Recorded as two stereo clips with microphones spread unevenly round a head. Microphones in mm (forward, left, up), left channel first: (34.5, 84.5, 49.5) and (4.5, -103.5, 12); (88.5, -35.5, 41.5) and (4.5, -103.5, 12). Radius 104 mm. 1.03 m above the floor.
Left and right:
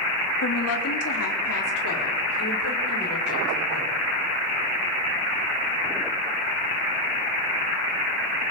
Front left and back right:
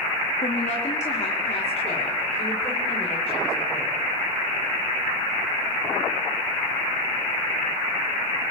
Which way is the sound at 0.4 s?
80° left.